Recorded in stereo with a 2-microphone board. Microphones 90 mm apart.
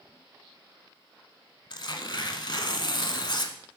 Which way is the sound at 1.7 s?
55° left (ahead or behind).